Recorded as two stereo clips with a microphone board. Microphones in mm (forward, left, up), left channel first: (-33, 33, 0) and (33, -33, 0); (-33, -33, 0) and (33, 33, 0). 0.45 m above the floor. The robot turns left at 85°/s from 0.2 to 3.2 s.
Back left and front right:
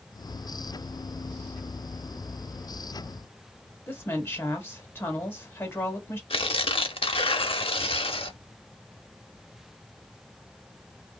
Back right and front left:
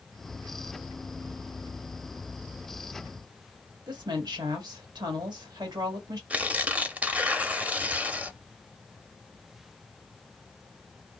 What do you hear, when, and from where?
3.9 s a woman speaking: 75° left, 1.3 m
6.3 s tearing paper: 120° left, 0.5 m